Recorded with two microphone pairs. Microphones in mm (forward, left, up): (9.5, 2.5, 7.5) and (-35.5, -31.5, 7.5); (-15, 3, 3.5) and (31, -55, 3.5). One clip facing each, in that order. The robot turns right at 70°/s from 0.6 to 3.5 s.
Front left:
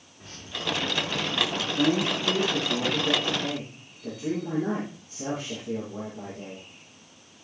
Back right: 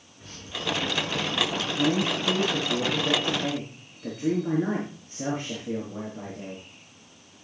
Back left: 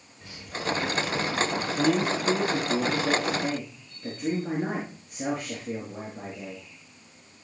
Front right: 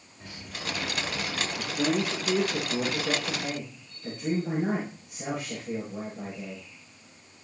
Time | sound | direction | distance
0.2 | dripping | 15° right | 6.5 m
1.6 | a man speaking | 45° left | 5 m